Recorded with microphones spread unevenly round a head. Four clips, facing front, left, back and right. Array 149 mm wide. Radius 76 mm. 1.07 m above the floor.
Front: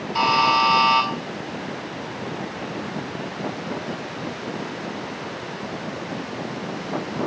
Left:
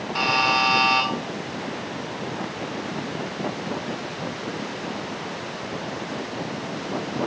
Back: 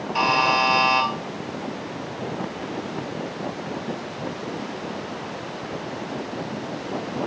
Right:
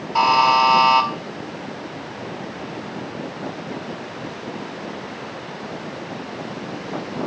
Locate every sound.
0.1 s a buzzer: 110° right, 1.5 m